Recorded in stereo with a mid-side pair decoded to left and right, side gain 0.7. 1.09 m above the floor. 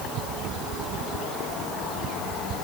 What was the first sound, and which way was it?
Only background noise.